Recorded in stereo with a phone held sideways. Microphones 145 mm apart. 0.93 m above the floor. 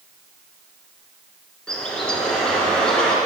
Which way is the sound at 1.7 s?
5° left (ahead or behind).